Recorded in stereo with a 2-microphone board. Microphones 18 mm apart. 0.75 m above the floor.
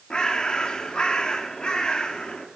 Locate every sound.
0.1 s a bird: 65° left (ahead or behind), 1.3 m